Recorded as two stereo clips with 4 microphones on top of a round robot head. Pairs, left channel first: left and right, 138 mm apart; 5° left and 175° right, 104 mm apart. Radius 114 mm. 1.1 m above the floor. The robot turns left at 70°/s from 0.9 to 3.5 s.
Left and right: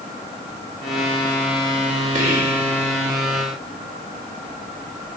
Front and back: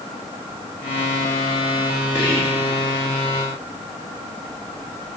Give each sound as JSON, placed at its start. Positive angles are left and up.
{"t": 2.1, "sound": "whispering", "azimuth_deg": -65, "distance_m": 2.0}